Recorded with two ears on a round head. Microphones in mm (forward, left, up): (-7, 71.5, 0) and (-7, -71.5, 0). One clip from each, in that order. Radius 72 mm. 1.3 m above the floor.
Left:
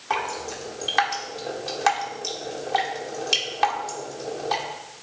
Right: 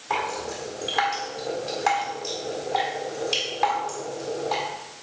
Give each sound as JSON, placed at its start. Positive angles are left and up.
{"t": 0.1, "sound": "dripping", "side_deg": 45, "distance_m": 1.5}